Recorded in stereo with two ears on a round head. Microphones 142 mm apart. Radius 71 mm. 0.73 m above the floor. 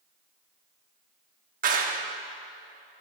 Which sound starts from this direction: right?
A clap, at 1.6 s.